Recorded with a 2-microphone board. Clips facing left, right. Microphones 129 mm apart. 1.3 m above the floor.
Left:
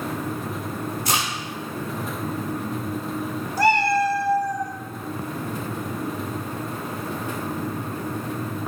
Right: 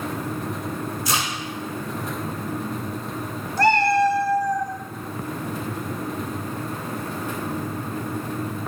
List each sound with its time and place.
1.1 s a crack: 65° left (ahead or behind), 3 m
3.6 s a cat meowing: 10° left (ahead or behind), 0.9 m